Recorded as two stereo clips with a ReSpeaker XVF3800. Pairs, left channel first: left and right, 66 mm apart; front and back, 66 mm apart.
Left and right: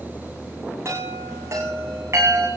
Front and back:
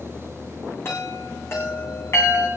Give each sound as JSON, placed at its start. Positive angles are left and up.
{"t": 0.8, "sound": "a chime", "azimuth_deg": -45, "distance_m": 7.0}